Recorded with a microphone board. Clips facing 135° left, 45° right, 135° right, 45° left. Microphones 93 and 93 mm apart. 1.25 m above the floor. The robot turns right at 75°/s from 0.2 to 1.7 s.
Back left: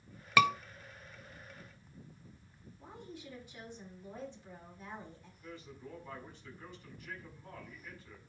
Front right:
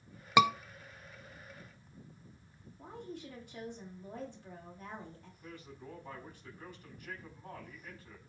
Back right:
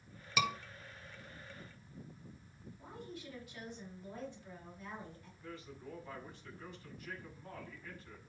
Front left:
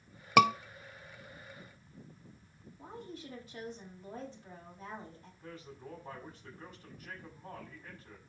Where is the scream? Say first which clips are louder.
Front right 2 dB, front left 12 dB; 25° left, 0.6 m; by 0.5 s 35° left, 0.6 m.